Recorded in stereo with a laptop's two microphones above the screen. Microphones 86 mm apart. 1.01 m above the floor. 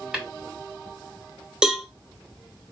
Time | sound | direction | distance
0.1 | tapping | 10° right (ahead or behind) | 1.8 m
1.6 | a cowbell | 10° right (ahead or behind) | 0.6 m